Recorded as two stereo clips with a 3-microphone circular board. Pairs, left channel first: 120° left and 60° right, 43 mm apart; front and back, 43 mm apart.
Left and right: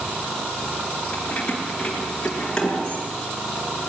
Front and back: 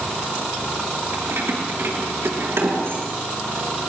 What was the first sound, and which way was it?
Keys jangling, 175° right.